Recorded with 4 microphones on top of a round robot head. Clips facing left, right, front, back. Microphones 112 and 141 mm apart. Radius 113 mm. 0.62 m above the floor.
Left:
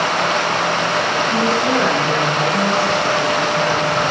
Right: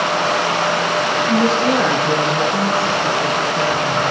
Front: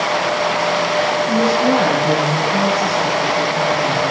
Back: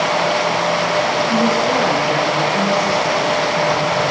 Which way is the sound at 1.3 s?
30° right.